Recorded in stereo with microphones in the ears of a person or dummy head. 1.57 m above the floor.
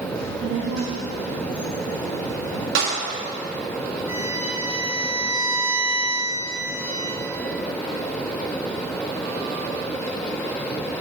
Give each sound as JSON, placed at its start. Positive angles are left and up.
{"t": 0.1, "sound": "a child speaking", "side_deg": -60, "distance_m": 1.5}
{"t": 2.8, "sound": "a clap", "side_deg": -65, "distance_m": 1.8}
{"t": 4.1, "sound": "a violin", "side_deg": -15, "distance_m": 2.0}